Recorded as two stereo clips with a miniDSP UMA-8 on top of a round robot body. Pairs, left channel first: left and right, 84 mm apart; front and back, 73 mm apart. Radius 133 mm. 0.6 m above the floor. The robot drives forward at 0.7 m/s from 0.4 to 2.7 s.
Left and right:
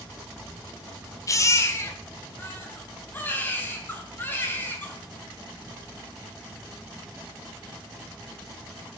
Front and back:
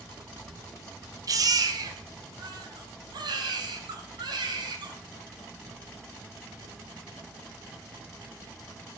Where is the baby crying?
140° left, 1.2 m; by 5.0 s 160° left, 2 m.